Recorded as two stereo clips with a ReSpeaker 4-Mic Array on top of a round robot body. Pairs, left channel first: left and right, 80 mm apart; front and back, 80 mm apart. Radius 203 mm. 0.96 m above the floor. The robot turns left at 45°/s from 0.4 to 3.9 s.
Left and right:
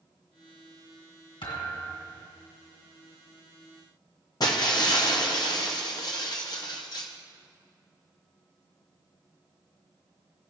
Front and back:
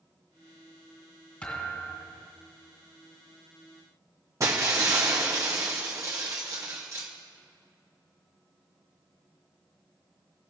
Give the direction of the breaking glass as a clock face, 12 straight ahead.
8 o'clock.